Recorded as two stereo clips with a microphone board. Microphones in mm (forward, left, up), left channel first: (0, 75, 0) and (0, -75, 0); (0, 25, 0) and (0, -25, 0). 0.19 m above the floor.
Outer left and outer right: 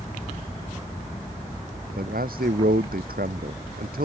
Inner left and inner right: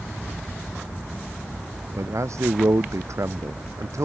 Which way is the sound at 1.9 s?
75° right (ahead or behind).